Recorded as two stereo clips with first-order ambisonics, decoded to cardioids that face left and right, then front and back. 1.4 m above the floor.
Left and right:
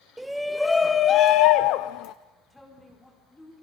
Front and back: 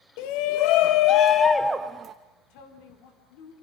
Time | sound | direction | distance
0.2 | a shout | 5° right | 1.1 m
2.5 | a woman speaking | 5° left | 5 m